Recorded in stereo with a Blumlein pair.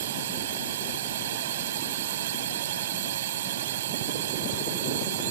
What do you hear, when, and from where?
0.0 s a drone: 55° right